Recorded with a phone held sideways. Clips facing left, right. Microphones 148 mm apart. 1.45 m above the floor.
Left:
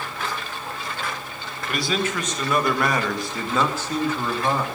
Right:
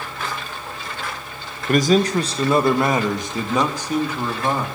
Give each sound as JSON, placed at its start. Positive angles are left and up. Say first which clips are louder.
{"t": 1.7, "sound": "a man speaking", "louder": "right 9 dB", "side_deg": -45, "distance_m": 1.1}